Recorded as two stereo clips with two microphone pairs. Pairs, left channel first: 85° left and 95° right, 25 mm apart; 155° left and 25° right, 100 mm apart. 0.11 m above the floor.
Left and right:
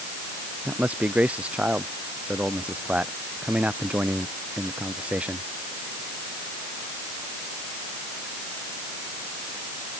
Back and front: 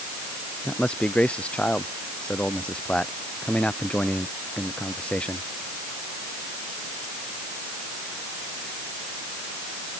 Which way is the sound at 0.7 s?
125° right.